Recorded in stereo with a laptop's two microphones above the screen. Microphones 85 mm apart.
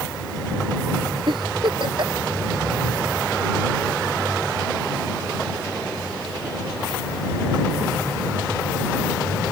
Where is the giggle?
65° right (ahead or behind).